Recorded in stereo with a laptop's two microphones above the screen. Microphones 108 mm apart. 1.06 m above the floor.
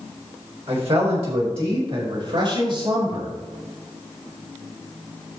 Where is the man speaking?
70° right (ahead or behind), 4 m; by 3.3 s 50° right (ahead or behind), 6 m.